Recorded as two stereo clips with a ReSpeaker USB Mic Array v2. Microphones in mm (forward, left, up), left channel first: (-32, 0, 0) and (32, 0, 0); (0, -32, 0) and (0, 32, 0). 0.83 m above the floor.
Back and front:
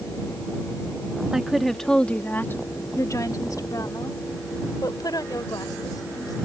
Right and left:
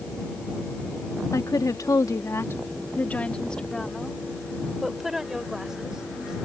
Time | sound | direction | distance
1.3 | a woman speaking | 80° right | ?